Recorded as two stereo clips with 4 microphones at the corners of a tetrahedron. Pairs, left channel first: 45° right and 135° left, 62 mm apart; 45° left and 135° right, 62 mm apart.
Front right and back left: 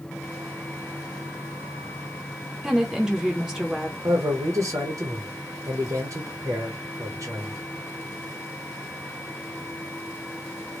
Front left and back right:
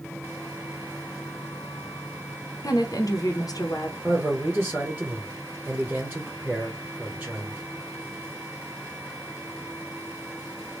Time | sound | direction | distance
2.6 | a woman speaking | 55° left | 0.8 m
4.0 | a man speaking | 145° left | 1.0 m